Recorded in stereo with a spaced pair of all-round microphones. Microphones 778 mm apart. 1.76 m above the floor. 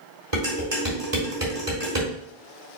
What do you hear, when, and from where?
0.3 s dishes clattering: 30° right (ahead or behind), 3 m